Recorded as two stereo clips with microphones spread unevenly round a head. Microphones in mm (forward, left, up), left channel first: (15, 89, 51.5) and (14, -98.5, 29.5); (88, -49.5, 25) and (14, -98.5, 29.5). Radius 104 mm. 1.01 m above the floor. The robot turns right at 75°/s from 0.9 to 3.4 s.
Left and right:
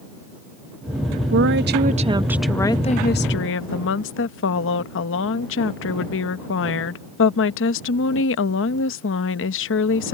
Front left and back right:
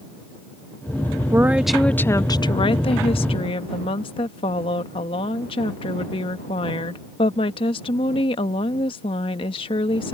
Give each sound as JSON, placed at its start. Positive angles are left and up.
{"t": 1.3, "sound": "a woman speaking", "azimuth_deg": -85}